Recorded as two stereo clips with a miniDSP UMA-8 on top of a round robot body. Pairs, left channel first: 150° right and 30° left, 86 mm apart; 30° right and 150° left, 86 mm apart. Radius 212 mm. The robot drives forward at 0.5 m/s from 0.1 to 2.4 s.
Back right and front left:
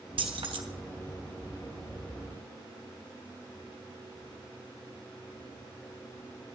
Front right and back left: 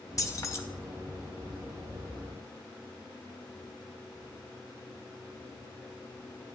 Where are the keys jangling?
20° left, 1.3 m; by 0.6 s 25° left, 1.2 m.